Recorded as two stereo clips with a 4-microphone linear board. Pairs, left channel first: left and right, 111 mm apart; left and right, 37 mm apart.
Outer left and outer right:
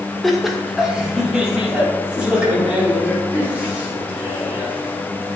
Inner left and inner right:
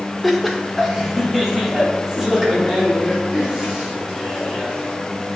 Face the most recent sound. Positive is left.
turn(degrees=-15)  # may be behind; listen again after turning